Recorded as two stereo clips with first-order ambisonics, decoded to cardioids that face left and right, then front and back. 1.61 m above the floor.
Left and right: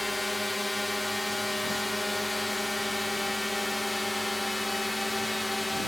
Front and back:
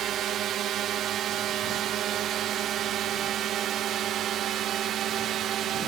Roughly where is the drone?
Behind.